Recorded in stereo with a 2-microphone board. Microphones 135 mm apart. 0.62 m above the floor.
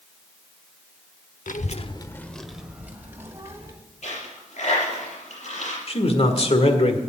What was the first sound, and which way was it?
A child speaking, 75° left (ahead or behind).